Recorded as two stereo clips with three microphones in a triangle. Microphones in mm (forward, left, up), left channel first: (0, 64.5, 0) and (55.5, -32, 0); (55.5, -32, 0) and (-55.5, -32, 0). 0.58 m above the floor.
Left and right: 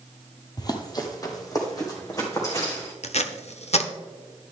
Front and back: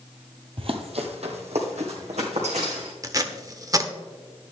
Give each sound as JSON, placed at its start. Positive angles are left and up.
{"t": 0.6, "sound": "running footsteps", "azimuth_deg": 165, "distance_m": 1.0}
{"t": 3.0, "sound": "tape being pulled", "azimuth_deg": 125, "distance_m": 0.8}